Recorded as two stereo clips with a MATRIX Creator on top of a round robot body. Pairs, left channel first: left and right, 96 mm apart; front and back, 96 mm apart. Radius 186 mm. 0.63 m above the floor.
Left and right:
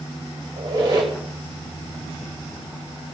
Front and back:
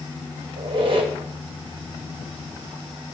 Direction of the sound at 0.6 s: 140° right.